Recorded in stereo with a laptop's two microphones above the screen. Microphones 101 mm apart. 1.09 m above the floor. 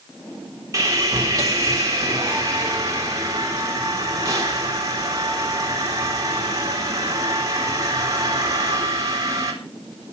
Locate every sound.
0.7 s sawing: 35° right (ahead or behind), 3.5 m